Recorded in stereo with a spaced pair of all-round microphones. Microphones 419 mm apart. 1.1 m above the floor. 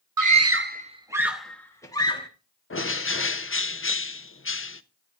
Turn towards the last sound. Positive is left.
turn(degrees=30)  # may be behind; listen again after turning